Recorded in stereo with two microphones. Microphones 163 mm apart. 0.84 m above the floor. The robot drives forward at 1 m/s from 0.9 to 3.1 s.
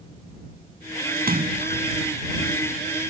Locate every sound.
1.2 s a splash: 70° right (ahead or behind); by 1.9 s 65° right (ahead or behind)